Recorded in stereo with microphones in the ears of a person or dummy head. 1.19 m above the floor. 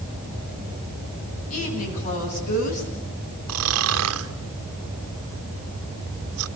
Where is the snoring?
75° right (ahead or behind), 1.2 m.